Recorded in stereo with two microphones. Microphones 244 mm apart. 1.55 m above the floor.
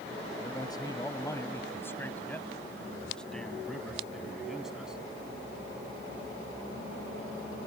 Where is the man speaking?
15° left (ahead or behind); by 5.0 s 5° right (ahead or behind).